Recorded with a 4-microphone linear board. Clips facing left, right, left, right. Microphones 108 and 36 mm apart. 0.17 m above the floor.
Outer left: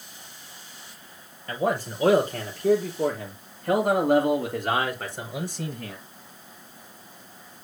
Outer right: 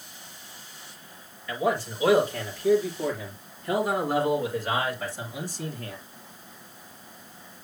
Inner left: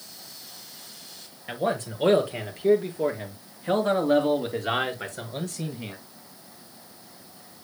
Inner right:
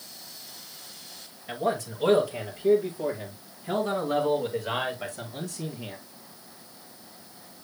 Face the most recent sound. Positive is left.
turn(degrees=60)  # may be behind; listen again after turning